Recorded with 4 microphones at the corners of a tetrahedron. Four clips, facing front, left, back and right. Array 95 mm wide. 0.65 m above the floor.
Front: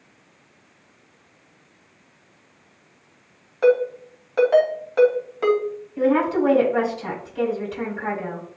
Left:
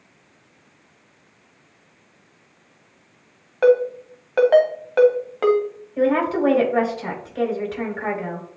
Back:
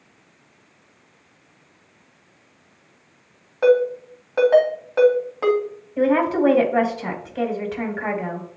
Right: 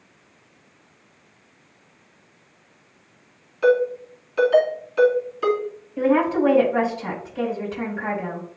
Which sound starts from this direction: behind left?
A woman speaking, at 6.0 s.